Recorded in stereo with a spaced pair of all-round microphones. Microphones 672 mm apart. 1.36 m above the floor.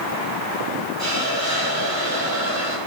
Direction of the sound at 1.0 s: 25° right (ahead or behind).